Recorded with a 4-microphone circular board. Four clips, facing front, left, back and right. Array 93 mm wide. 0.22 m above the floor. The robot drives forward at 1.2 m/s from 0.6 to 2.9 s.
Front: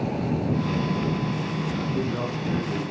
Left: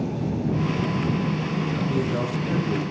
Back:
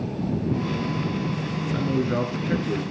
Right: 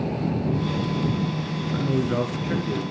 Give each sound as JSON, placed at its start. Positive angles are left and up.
{"t": 1.7, "sound": "a man speaking", "azimuth_deg": -135, "distance_m": 3.5}